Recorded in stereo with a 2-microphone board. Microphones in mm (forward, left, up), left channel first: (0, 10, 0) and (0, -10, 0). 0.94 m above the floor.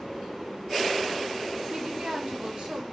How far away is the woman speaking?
About 1.4 m.